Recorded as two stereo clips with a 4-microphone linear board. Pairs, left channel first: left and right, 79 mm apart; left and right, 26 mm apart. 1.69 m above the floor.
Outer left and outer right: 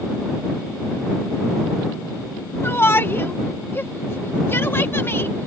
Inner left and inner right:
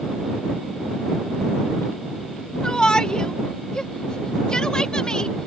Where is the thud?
I don't hear a thud.